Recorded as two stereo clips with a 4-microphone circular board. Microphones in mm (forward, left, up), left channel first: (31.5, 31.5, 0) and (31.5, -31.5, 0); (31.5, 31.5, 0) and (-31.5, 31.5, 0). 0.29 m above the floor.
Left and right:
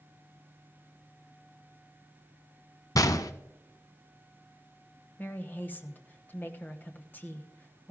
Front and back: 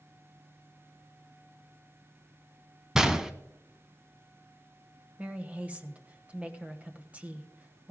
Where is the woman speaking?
125° left, 1.1 m.